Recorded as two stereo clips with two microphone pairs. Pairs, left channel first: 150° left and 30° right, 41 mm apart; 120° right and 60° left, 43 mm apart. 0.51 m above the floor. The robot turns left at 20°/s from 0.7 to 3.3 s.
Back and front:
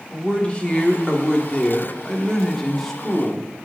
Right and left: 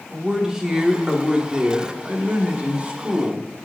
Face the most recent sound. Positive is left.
turn(degrees=70)